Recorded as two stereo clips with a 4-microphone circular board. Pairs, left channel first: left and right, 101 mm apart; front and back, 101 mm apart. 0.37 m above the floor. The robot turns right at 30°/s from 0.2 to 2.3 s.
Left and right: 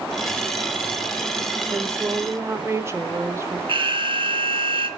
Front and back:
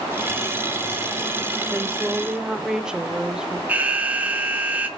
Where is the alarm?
105° right, 1.4 m.